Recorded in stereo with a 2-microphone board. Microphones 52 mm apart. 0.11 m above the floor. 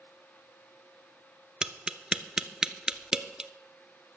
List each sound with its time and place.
1.6 s tapping: 15° right (ahead or behind), 0.5 m